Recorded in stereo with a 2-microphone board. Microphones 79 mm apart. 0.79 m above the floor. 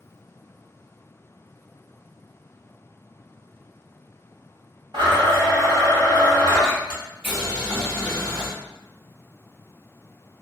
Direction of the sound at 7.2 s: 15° right (ahead or behind).